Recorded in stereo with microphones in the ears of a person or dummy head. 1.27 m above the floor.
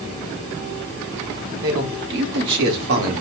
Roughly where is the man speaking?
Right.